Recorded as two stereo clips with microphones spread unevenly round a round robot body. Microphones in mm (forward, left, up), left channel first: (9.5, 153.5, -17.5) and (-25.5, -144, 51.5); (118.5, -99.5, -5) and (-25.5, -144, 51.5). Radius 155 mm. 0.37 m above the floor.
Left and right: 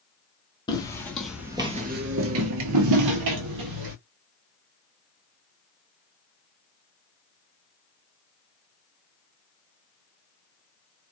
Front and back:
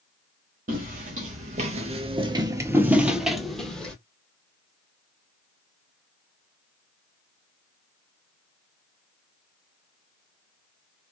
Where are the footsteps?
165° left, 0.9 m; by 4.0 s 75° right, 1.1 m.